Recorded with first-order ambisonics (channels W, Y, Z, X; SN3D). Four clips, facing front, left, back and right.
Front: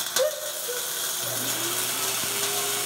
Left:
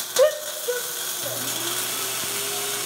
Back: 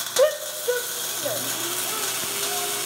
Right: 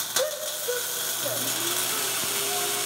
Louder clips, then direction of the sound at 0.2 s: Left 10 dB, back 7 dB; 125° left.